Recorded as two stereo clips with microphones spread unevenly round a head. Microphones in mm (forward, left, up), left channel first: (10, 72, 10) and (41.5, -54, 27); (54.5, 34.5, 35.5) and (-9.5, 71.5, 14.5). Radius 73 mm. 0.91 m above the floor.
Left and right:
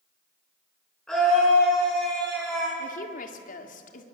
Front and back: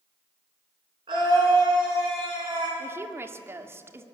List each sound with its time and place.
1.1 s a scream: 170° right, 9.5 m
2.8 s a woman speaking: 95° left, 2 m